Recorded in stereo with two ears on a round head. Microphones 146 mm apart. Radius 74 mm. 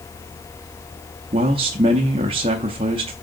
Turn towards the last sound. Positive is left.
turn(degrees=-35)  # may be behind; listen again after turning